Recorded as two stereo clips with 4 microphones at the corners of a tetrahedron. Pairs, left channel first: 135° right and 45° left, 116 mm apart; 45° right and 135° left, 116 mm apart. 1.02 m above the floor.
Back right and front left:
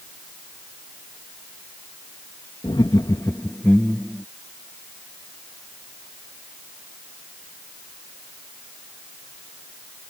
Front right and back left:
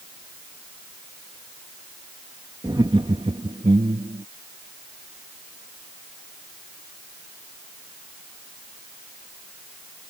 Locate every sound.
2.6 s laughter: 175° right; by 4.2 s 135° left